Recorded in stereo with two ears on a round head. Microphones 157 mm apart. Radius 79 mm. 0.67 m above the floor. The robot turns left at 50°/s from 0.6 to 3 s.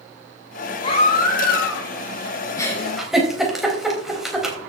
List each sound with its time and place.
0.8 s a baby crying: 150° left, 4 m; by 1.9 s 95° left, 4 m
2.6 s a giggle: 20° left (ahead or behind), 3.5 m; by 4.6 s centre (ahead or behind), 3.5 m